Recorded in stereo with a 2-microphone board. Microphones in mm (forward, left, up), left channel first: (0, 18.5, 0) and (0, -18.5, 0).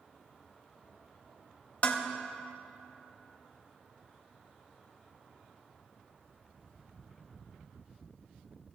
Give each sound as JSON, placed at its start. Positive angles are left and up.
{"t": 1.8, "sound": "dishes clattering", "side_deg": 45, "distance_m": 1.1}